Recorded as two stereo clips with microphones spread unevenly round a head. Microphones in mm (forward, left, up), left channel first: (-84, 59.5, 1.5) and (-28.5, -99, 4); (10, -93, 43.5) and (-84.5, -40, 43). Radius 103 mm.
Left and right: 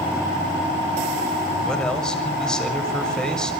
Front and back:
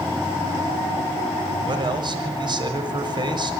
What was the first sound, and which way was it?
A man speaking, 165° right.